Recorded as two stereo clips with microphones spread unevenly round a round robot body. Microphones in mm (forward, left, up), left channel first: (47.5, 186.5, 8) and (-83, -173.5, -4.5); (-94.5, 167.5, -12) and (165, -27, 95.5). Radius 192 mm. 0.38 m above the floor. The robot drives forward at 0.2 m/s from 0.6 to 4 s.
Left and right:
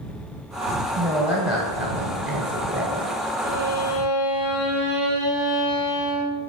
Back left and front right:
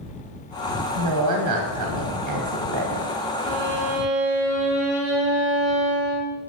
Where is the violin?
20° left, 2 m; by 6.4 s 25° left, 2.0 m.